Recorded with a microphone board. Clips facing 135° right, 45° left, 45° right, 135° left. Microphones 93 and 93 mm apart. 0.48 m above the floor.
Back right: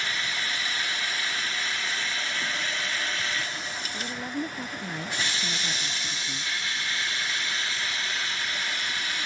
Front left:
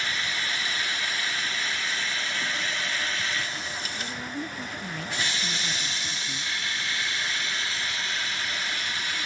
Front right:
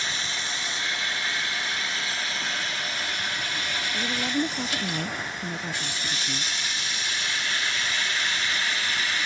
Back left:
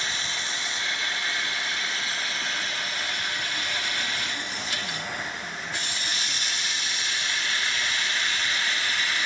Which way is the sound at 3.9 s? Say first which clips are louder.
Back right 5 dB, front right 6 dB; 70° right.